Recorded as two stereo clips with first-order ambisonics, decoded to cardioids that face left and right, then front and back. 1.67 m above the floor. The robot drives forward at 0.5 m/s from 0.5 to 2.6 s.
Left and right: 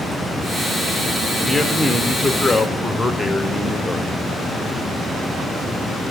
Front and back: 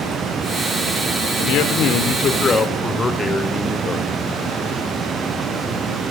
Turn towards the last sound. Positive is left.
turn(degrees=20)